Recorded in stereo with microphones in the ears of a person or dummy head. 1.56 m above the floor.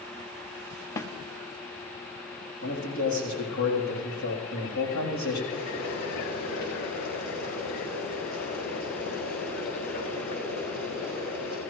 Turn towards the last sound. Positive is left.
turn(degrees=50)  # may be behind; listen again after turning